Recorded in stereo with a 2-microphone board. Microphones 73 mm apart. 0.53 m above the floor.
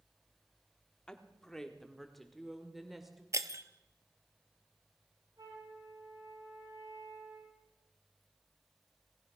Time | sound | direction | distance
1.1 | a woman speaking | 15° left (ahead or behind) | 1.3 m
3.3 | breaking glass | 45° right (ahead or behind) | 0.8 m
5.4 | a flute | 65° right (ahead or behind) | 6.5 m